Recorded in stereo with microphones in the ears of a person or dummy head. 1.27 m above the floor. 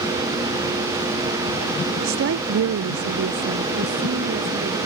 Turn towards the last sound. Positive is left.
turn(degrees=-45)  # may be behind; listen again after turning